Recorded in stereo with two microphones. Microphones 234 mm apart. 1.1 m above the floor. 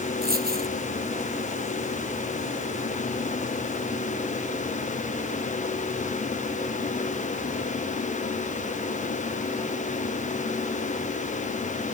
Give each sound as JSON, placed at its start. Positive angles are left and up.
{"t": 0.2, "sound": "a dropped coin", "side_deg": -40}